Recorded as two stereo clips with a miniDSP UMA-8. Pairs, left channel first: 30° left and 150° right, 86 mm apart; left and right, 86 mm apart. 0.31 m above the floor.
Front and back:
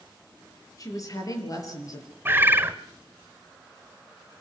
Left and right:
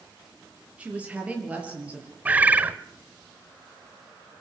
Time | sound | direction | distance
0.8 | a woman speaking | 15° right | 6 m
2.2 | a bird | 135° right | 1.0 m